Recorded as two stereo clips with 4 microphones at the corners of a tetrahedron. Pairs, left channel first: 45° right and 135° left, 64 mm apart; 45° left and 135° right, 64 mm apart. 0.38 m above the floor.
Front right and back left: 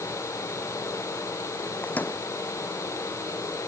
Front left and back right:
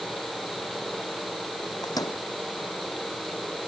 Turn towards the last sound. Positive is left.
turn(degrees=20)